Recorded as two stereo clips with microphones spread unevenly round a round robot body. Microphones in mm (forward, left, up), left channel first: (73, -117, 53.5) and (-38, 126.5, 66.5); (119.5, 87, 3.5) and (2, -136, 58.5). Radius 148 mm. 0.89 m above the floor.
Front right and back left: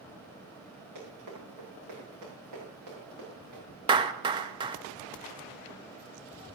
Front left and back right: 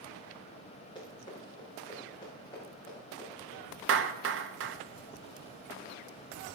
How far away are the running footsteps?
About 7.5 m.